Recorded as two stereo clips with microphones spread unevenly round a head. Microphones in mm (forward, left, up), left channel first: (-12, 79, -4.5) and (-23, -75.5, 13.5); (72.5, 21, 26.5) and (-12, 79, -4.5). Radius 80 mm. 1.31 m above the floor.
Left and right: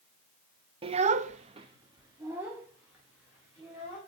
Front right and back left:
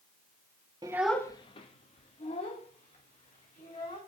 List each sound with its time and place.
0.8 s a child speaking: 140° right, 0.8 m; by 4.0 s 10° right, 4 m